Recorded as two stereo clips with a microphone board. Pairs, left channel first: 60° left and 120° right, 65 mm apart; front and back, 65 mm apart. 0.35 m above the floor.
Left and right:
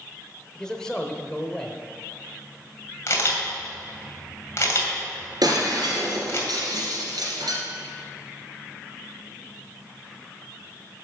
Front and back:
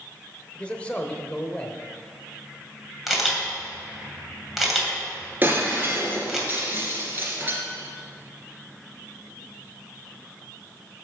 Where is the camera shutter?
95° left, 2.5 m.